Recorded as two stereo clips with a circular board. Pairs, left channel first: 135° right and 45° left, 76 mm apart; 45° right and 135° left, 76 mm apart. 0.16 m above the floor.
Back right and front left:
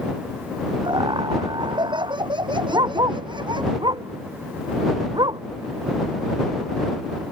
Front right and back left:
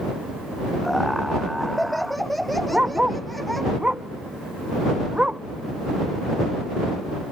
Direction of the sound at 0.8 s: 45° left.